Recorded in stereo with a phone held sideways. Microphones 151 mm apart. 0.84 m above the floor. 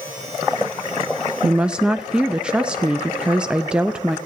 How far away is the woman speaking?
About 0.5 m.